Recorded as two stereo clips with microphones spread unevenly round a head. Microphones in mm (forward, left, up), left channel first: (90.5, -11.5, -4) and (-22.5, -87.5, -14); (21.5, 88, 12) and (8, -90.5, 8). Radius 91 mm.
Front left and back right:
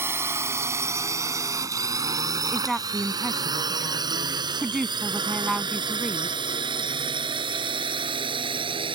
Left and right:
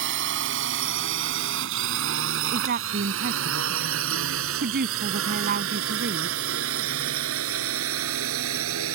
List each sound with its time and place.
0.0 s a drone: 75° right; by 8.9 s 95° right
2.5 s a woman speaking: 55° right